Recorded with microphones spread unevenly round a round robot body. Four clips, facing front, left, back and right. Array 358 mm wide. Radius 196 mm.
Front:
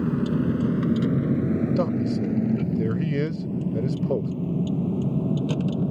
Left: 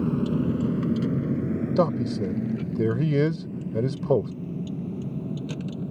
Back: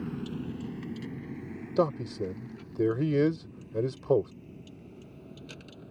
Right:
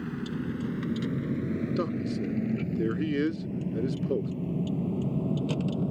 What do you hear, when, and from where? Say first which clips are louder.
0.0 s a vehicle: left 9 dB, front 12 dB; 40° left; by 5.9 s 10° right
1.8 s a man speaking: left 6 dB, front 4 dB; 80° left